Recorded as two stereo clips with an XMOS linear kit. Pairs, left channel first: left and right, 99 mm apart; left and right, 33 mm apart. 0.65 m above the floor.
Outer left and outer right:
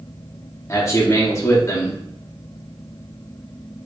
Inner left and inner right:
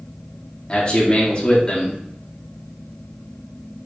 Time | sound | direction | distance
0.7 | a man speaking | 30° left (ahead or behind) | 1.1 m